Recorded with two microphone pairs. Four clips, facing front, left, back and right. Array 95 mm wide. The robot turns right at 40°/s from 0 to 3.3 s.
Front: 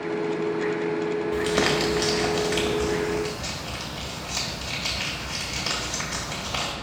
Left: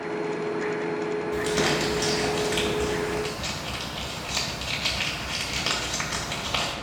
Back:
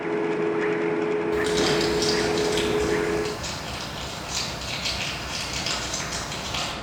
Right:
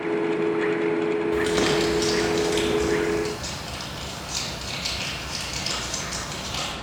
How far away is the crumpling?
About 1.5 m.